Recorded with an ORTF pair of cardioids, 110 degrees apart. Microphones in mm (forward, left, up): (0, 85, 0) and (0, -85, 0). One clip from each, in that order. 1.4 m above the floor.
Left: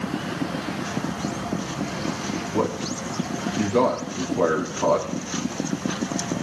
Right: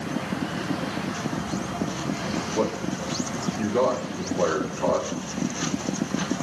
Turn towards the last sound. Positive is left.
turn(degrees=50)